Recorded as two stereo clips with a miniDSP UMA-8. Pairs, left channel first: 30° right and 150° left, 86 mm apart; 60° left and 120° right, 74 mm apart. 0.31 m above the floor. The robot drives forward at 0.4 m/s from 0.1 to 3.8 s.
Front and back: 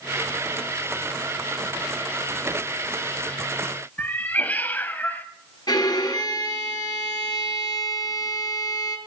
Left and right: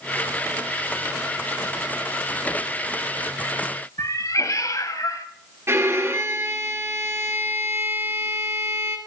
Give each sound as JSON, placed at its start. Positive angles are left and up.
{"t": 4.0, "sound": "a cat meowing", "azimuth_deg": 35, "distance_m": 0.8}
{"t": 5.7, "sound": "a violin", "azimuth_deg": -70, "distance_m": 1.6}